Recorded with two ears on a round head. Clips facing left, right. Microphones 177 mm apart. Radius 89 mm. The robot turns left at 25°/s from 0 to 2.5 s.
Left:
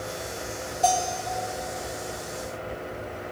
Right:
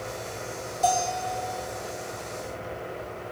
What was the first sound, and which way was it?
A bell, 15° right (ahead or behind).